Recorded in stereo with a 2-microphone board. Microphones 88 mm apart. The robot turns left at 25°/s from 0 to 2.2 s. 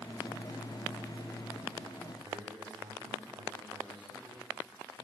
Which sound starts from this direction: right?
A man speaking, at 2.2 s.